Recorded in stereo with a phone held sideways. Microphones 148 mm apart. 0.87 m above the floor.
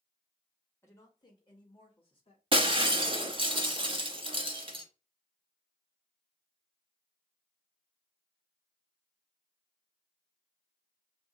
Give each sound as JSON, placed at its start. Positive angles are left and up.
{"t": 0.8, "sound": "a woman speaking", "side_deg": 20, "distance_m": 1.5}
{"t": 2.5, "sound": "breaking glass", "side_deg": -35, "distance_m": 0.9}